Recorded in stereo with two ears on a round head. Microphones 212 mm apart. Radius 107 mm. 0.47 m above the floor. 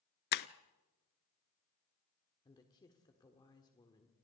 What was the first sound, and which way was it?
Breaking glass, 45° left (ahead or behind).